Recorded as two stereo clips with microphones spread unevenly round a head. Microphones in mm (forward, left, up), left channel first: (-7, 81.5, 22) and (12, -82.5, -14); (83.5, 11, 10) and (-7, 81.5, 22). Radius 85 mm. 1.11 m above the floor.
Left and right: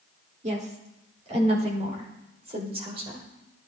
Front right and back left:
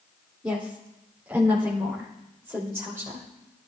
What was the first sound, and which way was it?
A woman speaking, 135° right.